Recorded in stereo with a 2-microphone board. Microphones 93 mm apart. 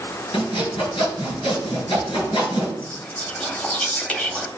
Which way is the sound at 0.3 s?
70° left (ahead or behind).